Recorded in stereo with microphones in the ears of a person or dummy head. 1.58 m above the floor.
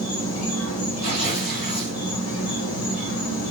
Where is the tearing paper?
50° left (ahead or behind), 2 m.